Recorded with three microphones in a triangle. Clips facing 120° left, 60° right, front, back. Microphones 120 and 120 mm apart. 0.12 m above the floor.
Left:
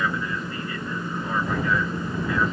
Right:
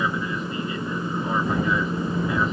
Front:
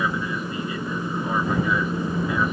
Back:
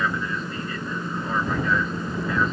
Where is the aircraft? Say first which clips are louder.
Right 1 dB, front 1 dB; 45° right.